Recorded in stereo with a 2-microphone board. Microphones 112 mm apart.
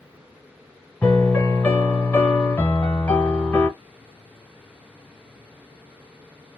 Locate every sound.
1.0 s a piano: 15° left (ahead or behind), 1.3 m